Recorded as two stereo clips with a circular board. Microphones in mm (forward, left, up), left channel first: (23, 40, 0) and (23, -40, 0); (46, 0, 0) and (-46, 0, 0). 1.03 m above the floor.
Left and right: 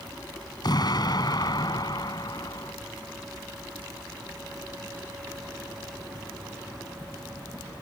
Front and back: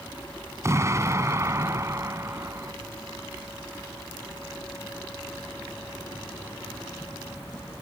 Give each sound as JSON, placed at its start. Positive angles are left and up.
{"t": 0.6, "sound": "an explosion", "azimuth_deg": 120}